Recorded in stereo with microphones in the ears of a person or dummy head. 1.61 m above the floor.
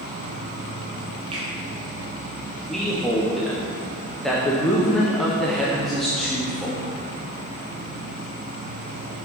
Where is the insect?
40° right (ahead or behind), 0.8 m.